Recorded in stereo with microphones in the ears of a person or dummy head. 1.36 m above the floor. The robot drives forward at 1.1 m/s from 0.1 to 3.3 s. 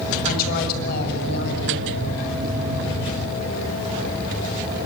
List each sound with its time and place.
0.2 s a woman speaking: 50° left (ahead or behind), 7 m; by 1.9 s 65° left (ahead or behind), 6 m